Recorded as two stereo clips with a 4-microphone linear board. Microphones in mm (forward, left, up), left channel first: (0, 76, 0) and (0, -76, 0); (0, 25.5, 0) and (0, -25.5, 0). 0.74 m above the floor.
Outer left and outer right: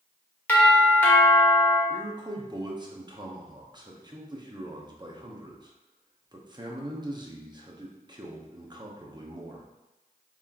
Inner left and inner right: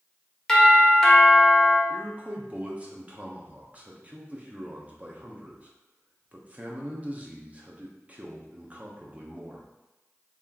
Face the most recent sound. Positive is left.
turn(degrees=-30)  # may be behind; listen again after turning